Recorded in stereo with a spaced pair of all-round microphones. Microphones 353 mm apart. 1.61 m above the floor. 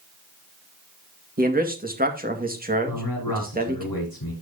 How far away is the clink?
I don't hear a clink.